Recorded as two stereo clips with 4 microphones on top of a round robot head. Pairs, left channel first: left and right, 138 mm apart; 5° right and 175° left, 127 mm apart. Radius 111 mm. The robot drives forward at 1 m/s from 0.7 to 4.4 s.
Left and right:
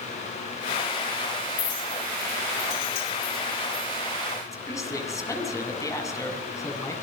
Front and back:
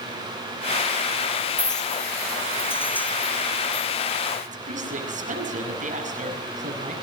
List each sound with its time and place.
1.6 s a clink: 50° left, 4 m; by 3.9 s 90° left, 3 m
4.5 s a woman speaking: 160° left, 7.5 m